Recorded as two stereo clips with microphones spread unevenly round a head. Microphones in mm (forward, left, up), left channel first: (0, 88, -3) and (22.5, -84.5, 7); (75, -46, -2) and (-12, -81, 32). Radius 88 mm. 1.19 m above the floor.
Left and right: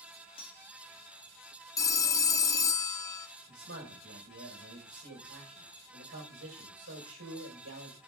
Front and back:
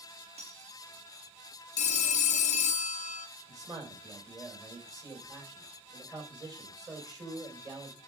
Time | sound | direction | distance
0.4 | cutlery clinking | 160° left | 1.6 m
1.8 | a phone ringing | 25° left | 0.5 m
3.5 | a man speaking | 105° right | 4.5 m